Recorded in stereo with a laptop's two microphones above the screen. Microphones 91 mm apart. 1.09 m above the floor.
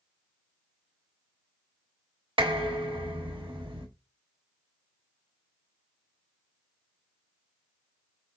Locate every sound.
2.4 s dishes clattering: 70° right (ahead or behind), 1.2 m